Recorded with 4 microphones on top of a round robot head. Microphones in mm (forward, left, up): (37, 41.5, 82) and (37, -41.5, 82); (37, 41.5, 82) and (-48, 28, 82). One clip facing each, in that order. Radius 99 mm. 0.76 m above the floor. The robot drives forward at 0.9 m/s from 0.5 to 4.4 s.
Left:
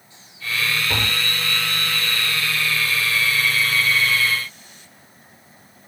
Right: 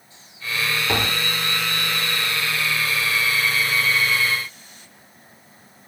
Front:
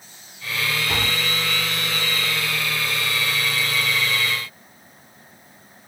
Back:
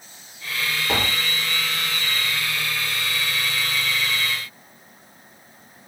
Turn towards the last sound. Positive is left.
turn(degrees=-150)